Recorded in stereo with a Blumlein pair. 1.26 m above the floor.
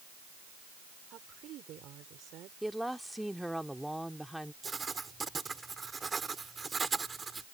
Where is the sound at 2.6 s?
Straight ahead.